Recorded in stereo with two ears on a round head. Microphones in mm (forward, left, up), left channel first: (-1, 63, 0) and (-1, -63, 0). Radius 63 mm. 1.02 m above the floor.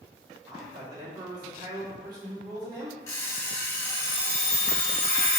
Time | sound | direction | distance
0.5 | a man speaking | 30° right (ahead or behind) | 1.4 m
3.1 | an alarm clock | 20° left (ahead or behind) | 1.2 m